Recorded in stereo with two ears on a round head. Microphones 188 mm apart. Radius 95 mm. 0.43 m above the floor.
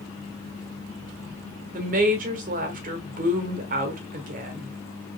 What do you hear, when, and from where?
1.7 s a woman speaking: 40° right (ahead or behind), 1.2 m